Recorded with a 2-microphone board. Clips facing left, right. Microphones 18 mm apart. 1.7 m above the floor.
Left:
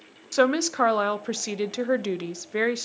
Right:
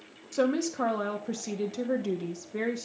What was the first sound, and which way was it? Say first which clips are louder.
A woman speaking: left 6 dB; 45° left (ahead or behind).